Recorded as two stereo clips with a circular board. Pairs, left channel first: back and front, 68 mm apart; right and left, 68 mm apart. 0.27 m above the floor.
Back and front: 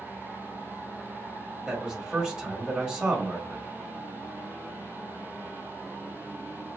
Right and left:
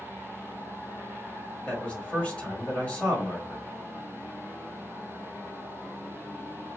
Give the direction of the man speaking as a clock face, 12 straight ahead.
2 o'clock.